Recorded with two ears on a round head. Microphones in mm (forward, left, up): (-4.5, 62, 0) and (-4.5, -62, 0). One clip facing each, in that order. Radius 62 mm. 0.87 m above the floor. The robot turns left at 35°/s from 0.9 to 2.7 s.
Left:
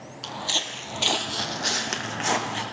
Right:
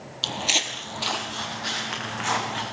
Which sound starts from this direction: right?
Footsteps, at 0.2 s.